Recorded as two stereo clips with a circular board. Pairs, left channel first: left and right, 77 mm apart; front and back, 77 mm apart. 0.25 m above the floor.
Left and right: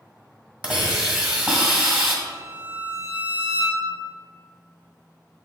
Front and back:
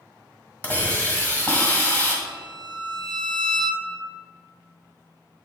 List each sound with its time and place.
0.6 s a hiss: 40° right, 1.6 m
2.2 s a violin: 160° right, 0.8 m